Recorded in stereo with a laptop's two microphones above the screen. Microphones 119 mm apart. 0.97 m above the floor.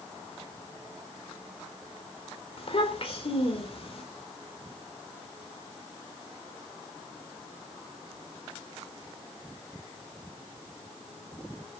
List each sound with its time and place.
2.6 s a child speaking: 55° left (ahead or behind), 3 m